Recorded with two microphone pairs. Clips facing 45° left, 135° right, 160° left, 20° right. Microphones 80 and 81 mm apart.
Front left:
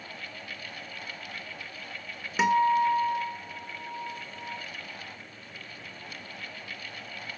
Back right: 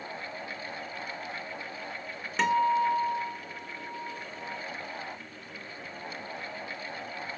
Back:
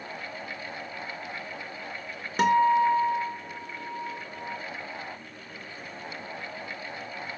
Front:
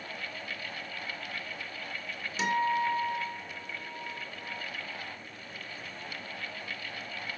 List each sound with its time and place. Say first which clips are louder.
2.4 s a guitar: front left 2 dB, back 8 dB; 125° left, 1.7 m